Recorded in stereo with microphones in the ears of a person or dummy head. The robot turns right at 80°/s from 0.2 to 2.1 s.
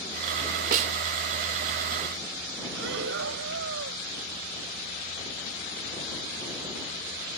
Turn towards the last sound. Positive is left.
turn(degrees=-70)  # may be behind; listen again after turning